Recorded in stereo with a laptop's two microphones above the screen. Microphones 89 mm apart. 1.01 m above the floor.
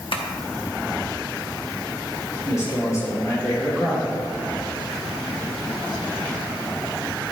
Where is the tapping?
75° left (ahead or behind), 0.9 m.